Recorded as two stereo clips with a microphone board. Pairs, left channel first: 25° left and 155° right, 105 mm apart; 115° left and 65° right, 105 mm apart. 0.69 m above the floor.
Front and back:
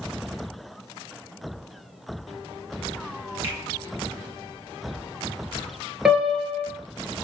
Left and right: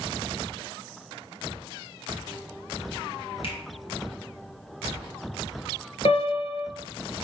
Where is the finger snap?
135° left, 2.5 m.